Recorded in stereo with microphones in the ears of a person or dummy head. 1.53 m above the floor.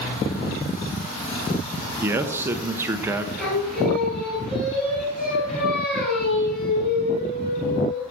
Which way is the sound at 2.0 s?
15° right (ahead or behind).